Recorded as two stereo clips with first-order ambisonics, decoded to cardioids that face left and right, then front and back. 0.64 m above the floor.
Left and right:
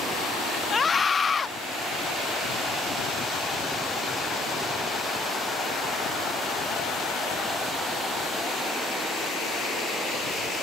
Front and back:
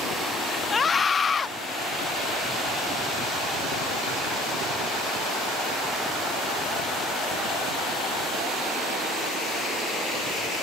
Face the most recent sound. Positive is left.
turn(degrees=45)